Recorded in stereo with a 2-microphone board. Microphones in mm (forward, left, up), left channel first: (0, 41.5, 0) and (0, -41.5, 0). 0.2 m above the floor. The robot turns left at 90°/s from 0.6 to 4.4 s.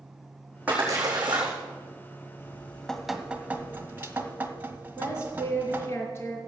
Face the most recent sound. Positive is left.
turn(degrees=30)  # may be behind; listen again after turning